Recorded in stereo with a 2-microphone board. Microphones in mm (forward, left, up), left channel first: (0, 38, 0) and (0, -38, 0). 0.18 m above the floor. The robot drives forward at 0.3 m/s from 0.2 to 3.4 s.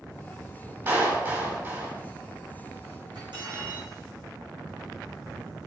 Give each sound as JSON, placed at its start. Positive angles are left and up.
{"t": 0.9, "sound": "a clap", "side_deg": -30, "distance_m": 5.5}
{"t": 3.1, "sound": "cutlery clinking", "side_deg": -80, "distance_m": 5.5}